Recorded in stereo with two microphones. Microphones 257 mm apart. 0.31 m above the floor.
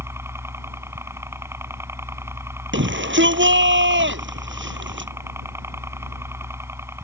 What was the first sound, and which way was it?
A helicopter, 10° right (ahead or behind).